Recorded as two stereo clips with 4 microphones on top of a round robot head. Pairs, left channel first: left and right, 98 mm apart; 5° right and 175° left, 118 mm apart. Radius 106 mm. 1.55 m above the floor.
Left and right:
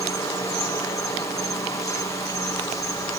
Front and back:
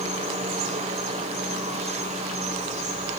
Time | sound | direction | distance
0.0 | an insect | 145° left | 3.5 m